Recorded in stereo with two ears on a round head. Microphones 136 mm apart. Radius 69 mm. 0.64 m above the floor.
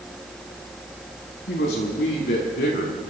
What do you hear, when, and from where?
1.5 s a man speaking: 75° left (ahead or behind), 5 m; by 3.1 s 85° left, 7 m